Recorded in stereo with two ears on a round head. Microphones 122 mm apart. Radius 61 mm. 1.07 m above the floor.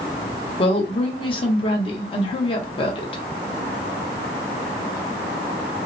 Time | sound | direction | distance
0.6 | a woman speaking | 40° left (ahead or behind) | 0.8 m